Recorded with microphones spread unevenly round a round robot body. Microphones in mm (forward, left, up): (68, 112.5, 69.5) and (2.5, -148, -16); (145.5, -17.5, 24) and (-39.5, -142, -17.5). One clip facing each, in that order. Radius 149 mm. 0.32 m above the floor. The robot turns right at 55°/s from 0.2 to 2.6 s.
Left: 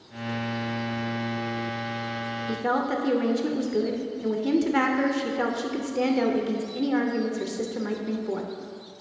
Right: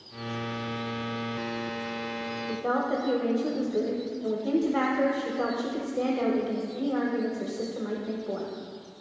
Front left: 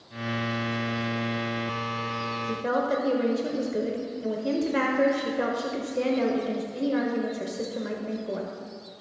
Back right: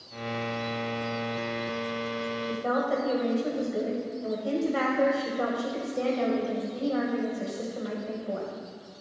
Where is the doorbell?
I don't hear a doorbell.